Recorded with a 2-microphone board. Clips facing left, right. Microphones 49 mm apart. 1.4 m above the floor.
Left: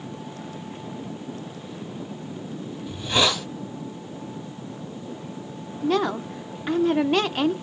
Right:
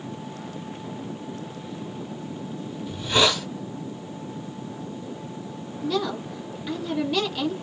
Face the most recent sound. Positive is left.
turn(degrees=40)  # may be behind; listen again after turning